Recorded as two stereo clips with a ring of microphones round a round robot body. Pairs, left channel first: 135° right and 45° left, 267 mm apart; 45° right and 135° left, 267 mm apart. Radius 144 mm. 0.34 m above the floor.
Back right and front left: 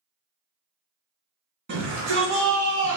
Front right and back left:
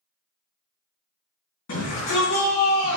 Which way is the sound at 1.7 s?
5° right.